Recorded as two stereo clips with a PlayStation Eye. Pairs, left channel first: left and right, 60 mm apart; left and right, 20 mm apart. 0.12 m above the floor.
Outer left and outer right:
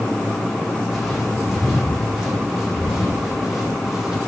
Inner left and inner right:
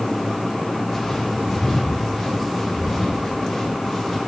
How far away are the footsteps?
About 7 m.